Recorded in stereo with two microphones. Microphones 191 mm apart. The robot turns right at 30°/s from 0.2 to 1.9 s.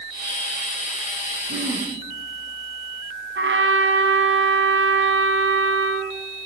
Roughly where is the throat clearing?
Right.